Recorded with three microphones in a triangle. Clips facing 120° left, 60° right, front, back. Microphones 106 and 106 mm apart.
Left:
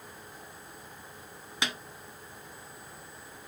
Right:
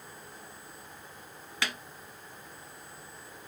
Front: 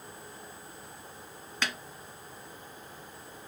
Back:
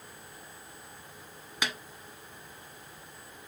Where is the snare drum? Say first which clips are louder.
Left 1 dB, even; 125° left, 0.8 m.